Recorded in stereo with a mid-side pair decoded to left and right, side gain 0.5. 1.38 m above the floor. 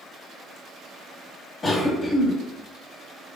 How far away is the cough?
About 1.2 m.